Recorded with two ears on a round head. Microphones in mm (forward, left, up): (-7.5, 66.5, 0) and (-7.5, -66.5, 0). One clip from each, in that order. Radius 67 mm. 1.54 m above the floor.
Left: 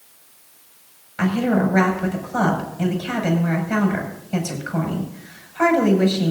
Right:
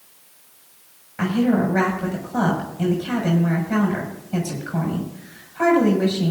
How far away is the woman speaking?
About 6 m.